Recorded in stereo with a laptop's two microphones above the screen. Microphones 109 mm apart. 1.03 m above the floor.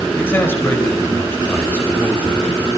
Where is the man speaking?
20° left (ahead or behind), 4.5 m.